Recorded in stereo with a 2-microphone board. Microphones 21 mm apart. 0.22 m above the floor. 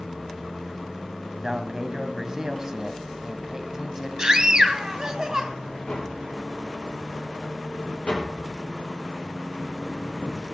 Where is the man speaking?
25° right (ahead or behind), 1.0 m.